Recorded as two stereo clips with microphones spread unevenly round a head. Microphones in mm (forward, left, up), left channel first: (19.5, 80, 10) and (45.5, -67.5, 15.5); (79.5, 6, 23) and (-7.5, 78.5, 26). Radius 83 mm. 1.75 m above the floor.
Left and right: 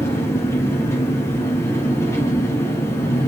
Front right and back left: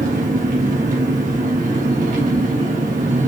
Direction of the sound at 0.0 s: 175° left.